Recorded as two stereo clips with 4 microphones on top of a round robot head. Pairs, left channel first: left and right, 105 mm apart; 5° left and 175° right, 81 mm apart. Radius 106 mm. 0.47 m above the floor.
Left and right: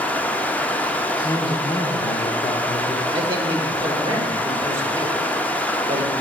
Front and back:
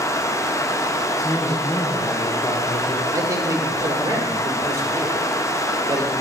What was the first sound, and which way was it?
Running water, 20° left.